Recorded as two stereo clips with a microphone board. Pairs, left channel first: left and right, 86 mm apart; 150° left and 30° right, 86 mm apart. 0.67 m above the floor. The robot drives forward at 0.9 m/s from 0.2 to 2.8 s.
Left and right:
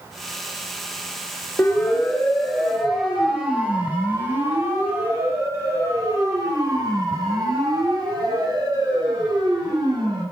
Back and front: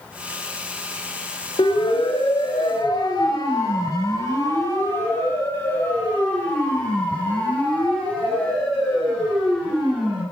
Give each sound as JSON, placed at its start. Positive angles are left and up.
{"t": 1.6, "sound": "a siren", "azimuth_deg": 155, "distance_m": 3.5}